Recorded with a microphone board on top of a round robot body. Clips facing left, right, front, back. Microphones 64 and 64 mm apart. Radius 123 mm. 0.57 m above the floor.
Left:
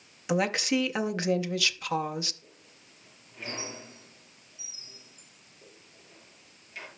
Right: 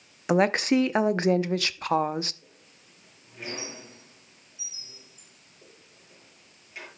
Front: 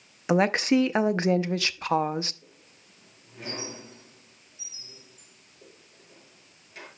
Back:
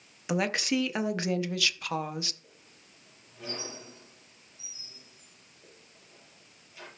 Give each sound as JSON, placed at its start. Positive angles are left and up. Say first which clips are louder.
{"t": 0.3, "sound": "a woman speaking", "louder": "right 5 dB, front 7 dB", "azimuth_deg": -50, "distance_m": 0.9}
{"t": 2.4, "sound": "a squeak", "louder": "even, front 2 dB", "azimuth_deg": -15, "distance_m": 7.5}